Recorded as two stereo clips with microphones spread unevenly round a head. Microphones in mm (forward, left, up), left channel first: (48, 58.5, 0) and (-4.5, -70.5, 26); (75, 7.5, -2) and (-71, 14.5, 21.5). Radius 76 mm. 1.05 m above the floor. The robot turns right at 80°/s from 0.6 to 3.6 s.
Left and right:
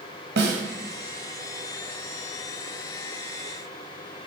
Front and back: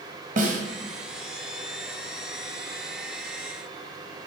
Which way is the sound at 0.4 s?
135° right.